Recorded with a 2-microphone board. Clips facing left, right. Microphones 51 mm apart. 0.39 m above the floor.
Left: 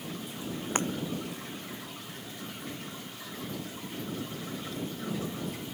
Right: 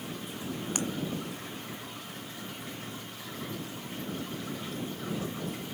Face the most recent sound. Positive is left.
turn(degrees=35)  # may be behind; listen again after turning